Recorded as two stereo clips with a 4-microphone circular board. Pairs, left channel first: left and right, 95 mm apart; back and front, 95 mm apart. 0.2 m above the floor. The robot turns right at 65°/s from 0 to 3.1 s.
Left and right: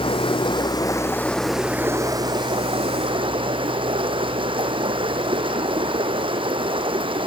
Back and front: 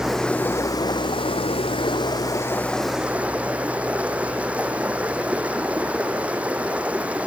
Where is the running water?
85° left, 1.5 m; by 7.3 s 75° right, 1.5 m.